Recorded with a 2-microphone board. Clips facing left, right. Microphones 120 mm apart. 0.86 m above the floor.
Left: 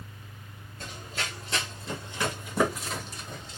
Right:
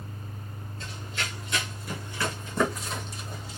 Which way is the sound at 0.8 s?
45° left (ahead or behind).